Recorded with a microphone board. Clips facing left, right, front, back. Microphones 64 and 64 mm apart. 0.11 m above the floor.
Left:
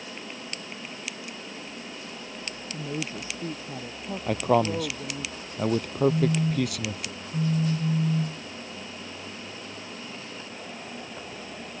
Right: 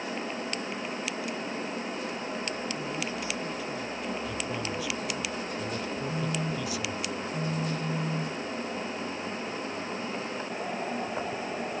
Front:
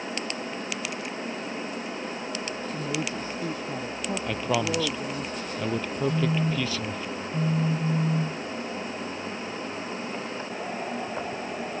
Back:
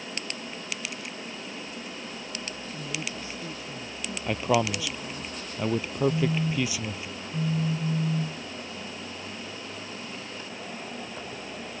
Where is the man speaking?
100° left.